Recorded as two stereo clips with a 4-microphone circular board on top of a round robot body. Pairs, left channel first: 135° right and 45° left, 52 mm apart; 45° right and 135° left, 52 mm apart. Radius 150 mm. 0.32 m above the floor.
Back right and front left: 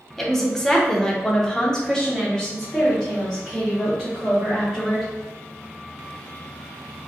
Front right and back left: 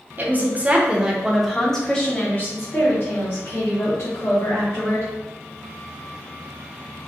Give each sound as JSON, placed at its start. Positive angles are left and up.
{"t": 0.2, "sound": "a woman speaking", "azimuth_deg": 145, "distance_m": 1.1}